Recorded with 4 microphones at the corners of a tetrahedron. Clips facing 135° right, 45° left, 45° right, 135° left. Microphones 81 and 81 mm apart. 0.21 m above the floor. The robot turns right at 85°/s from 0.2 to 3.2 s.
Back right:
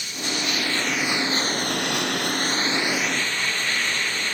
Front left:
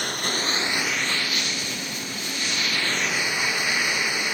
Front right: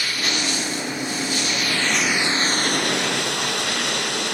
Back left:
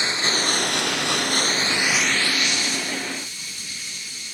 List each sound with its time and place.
0.0 s running water: 70° left; by 4.3 s 35° right